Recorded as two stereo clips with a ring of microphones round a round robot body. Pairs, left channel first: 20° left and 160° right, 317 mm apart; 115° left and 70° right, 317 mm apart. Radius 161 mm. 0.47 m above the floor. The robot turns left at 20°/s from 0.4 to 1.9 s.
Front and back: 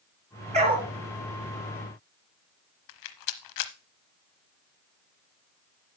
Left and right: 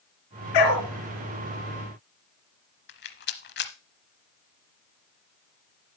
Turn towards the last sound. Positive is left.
turn(degrees=55)